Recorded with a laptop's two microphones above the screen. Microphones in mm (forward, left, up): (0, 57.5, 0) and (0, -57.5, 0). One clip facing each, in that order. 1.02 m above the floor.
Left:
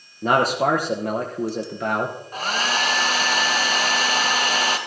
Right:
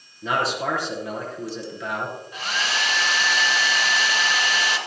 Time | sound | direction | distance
0.2 | a man speaking | 50° left (ahead or behind) | 0.8 m
2.3 | a hair dryer | 45° left (ahead or behind) | 1.0 m